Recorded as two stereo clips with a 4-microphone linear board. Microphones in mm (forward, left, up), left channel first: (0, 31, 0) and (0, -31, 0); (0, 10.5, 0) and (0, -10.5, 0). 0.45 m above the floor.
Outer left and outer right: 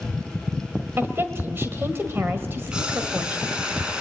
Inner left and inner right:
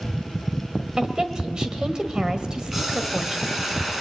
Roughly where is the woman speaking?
Right.